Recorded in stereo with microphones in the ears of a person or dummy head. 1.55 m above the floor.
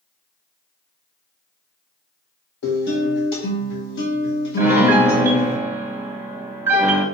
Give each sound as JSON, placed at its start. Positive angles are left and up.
{"t": 2.6, "sound": "a guitar", "side_deg": 60, "distance_m": 1.6}
{"t": 4.6, "sound": "a piano", "side_deg": -10, "distance_m": 0.9}